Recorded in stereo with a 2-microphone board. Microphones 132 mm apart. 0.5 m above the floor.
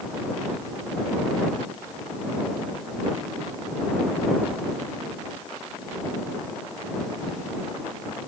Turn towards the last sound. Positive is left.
No sound to turn to.